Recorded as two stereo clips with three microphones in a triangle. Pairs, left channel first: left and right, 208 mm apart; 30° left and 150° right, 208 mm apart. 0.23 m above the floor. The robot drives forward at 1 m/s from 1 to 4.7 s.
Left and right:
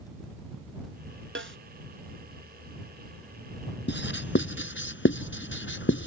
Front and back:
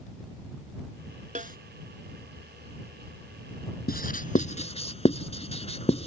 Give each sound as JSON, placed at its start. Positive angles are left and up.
{"t": 1.4, "sound": "a snare drum", "azimuth_deg": -95}
{"t": 3.9, "sound": "writing", "azimuth_deg": 70}